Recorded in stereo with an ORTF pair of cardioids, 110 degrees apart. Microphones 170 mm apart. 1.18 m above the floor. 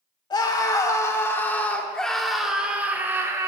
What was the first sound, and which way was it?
A scream, 25° left.